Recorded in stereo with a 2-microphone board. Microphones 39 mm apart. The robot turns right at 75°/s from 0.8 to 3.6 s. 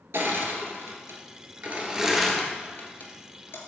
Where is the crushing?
65° right (ahead or behind), 1.6 m; by 3.6 s 70° left (ahead or behind), 1.6 m.